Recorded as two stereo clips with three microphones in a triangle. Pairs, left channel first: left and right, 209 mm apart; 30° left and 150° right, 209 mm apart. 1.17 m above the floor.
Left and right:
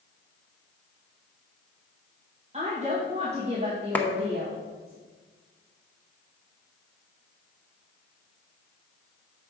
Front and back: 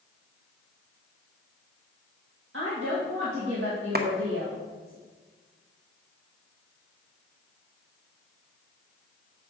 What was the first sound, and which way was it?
A woman speaking, 150° right.